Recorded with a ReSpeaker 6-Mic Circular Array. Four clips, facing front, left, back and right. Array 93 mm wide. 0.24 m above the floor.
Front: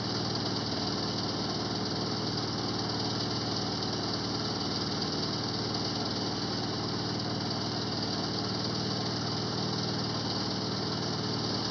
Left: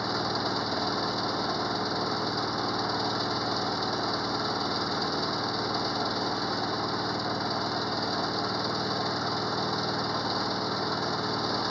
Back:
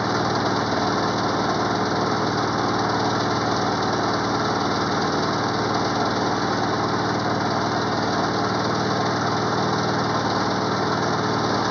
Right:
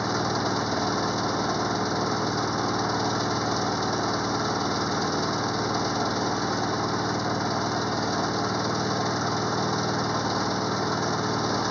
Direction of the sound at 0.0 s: 170° right.